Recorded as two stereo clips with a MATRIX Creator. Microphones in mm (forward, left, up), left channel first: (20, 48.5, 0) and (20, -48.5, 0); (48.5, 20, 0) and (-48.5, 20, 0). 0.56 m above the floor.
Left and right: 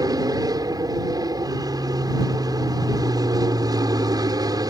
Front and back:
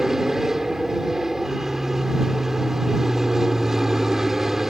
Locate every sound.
0.0 s an aircraft: 95° right